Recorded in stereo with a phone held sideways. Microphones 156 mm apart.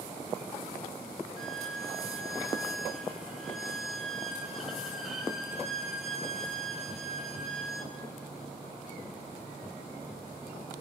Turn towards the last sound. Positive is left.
turn(degrees=0)  # may be behind; listen again after turning